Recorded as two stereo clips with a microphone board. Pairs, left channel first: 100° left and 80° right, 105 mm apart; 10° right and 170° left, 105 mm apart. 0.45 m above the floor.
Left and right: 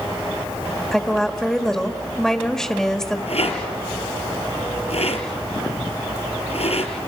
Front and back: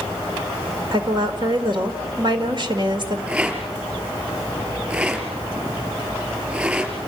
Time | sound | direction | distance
0.9 | a woman speaking | 175° right | 1.8 m
3.3 | a rattle | 95° left | 3.5 m